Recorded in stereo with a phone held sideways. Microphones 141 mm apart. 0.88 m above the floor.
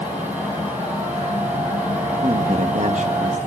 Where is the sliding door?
No sliding door in this recording.